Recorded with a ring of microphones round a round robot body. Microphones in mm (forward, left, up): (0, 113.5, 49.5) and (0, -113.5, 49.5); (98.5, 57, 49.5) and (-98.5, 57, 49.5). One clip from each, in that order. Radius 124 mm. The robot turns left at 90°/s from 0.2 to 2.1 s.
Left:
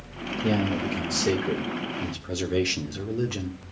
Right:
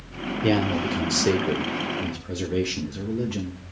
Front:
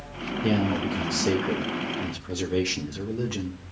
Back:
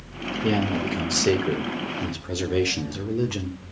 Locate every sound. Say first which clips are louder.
0.4 s a man speaking: right 4 dB, back 1 dB; 75° right, 1.8 m; by 3.6 s 135° left, 1.8 m